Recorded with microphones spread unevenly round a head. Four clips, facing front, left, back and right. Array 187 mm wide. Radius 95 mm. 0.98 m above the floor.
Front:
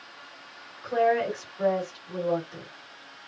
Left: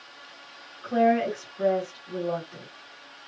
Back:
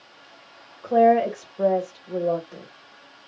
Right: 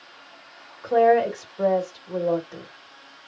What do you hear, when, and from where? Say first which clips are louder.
0.8 s a woman speaking: right 4 dB, back 7 dB; 140° right, 1.4 m